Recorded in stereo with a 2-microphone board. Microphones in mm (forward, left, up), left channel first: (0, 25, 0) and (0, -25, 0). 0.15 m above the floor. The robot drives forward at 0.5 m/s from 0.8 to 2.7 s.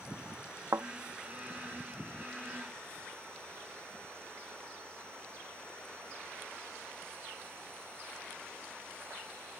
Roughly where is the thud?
Right.